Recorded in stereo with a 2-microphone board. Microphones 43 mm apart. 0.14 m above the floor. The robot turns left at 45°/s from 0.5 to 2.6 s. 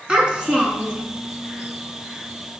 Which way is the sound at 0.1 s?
20° right (ahead or behind).